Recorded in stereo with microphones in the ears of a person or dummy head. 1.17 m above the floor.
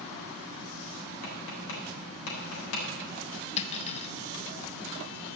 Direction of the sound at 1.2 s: 80° left.